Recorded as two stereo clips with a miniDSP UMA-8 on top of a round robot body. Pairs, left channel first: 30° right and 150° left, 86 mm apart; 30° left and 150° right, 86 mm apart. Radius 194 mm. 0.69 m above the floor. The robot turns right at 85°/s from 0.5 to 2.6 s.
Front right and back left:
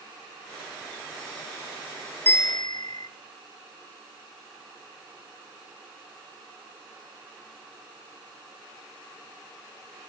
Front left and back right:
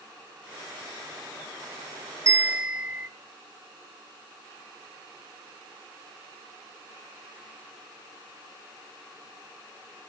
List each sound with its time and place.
2.3 s a bell: 95° right, 2 m; by 3.1 s 65° right, 2 m